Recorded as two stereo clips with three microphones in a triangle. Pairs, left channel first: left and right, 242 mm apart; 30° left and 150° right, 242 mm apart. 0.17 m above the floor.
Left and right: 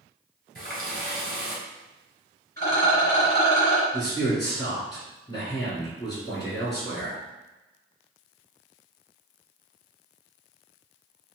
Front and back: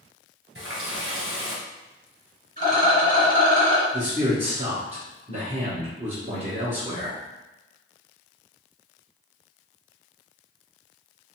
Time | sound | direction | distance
0.6 | a running tap | 130° right | 1.9 m
2.6 | a rattle | 165° left | 2.0 m
3.9 | a man speaking | 160° left | 1.6 m